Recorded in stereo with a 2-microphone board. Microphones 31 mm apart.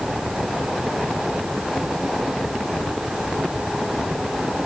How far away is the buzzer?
No buzzer in this recording.